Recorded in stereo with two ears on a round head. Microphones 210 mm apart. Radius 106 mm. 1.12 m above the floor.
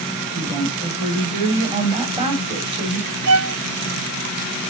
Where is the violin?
75° right (ahead or behind), 1.9 m.